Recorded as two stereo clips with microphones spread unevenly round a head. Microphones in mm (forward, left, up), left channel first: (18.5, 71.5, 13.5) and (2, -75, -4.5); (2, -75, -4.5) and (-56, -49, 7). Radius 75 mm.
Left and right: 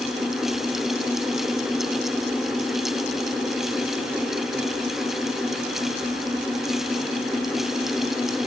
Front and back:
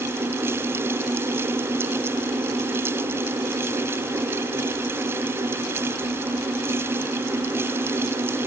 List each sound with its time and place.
Only background noise.